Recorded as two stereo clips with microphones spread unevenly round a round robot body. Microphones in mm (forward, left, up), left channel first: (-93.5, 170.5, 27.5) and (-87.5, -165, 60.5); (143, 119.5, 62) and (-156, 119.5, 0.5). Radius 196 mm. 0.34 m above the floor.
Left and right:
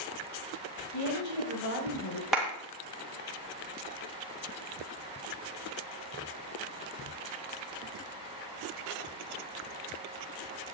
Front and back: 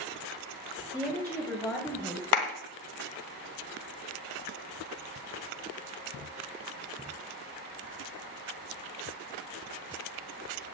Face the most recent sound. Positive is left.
turn(degrees=5)